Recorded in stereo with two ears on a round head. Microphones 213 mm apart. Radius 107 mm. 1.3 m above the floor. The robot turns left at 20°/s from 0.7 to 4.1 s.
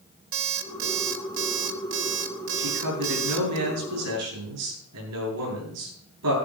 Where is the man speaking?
75° right, 9 m; by 6.3 s 105° right, 9 m.